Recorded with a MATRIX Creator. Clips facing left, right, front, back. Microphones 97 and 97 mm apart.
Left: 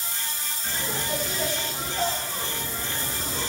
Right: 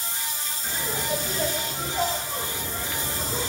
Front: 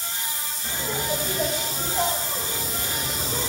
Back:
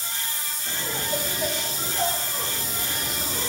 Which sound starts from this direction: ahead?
Laughter, at 0.6 s.